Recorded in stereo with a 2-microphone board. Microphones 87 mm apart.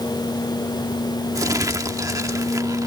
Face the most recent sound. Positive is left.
turn(degrees=-45)  # may be behind; listen again after turning